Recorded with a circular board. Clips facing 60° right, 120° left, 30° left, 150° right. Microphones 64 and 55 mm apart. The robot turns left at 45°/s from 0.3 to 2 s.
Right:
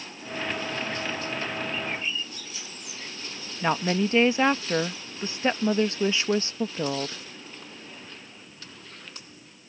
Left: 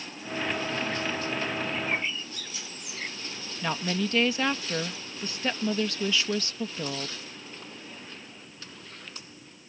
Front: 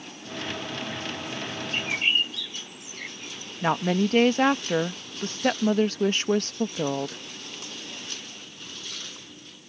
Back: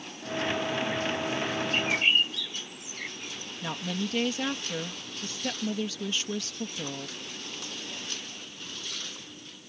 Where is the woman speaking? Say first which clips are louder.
Right 5 dB, front 10 dB; straight ahead.